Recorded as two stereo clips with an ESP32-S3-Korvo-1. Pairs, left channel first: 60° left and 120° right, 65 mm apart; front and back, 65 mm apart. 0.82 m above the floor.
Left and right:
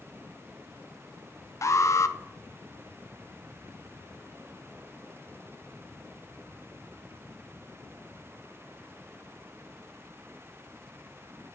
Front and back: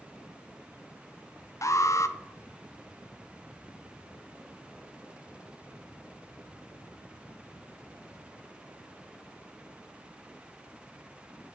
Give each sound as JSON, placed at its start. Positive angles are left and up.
{"t": 1.6, "sound": "an alarm", "azimuth_deg": 30, "distance_m": 0.5}